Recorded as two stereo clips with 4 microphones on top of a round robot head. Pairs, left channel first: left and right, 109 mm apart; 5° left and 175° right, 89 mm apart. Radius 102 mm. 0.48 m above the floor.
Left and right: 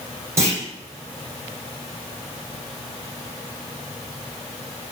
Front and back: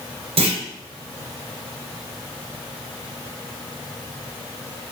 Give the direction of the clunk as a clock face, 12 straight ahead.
5 o'clock.